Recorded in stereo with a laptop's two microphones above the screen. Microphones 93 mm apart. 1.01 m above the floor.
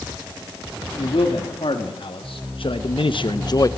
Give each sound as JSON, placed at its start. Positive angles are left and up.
{"t": 1.0, "sound": "a man speaking", "side_deg": 65, "distance_m": 2.0}